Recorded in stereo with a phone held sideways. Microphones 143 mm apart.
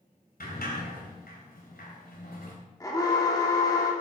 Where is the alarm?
25° left (ahead or behind), 2.5 m.